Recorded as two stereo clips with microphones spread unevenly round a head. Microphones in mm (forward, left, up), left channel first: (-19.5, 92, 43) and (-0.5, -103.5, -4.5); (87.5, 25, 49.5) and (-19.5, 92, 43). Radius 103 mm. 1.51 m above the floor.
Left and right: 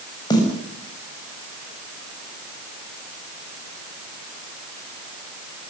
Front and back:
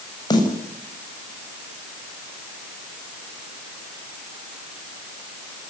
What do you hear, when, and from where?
0.3 s a snare drum: 25° left, 7.5 m